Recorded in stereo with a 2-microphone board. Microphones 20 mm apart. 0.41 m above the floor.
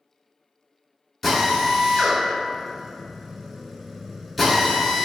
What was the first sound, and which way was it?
A drill, 10° left (ahead or behind).